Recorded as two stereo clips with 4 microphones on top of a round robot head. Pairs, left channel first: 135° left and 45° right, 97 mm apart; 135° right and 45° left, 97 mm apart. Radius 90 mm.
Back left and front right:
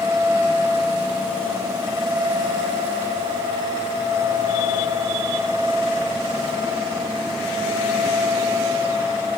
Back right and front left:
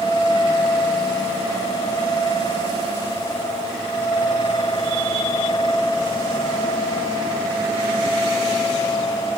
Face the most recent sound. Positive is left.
No sound to turn to.